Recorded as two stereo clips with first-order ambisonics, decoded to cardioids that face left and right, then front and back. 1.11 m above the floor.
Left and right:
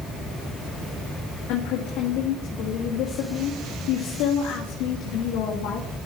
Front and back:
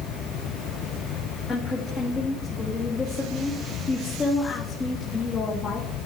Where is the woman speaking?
65° left, 1.8 m.